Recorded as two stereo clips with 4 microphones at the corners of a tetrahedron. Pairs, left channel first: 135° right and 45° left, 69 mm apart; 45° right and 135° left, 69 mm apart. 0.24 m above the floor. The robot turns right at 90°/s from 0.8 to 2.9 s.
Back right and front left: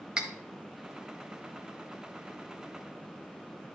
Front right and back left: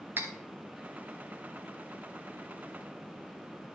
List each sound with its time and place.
0.2 s cutlery clinking: 115° left, 0.7 m